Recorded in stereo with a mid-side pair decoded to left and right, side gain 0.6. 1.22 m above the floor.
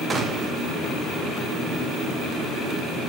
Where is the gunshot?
25° right, 1.6 m.